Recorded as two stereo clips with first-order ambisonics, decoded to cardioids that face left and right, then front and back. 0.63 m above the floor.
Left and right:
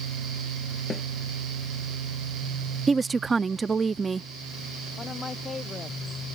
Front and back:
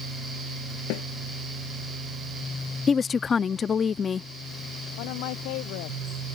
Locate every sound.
0.9 s a snare drum: 15° left
2.9 s a woman speaking: 40° right
5.0 s a woman speaking: 15° left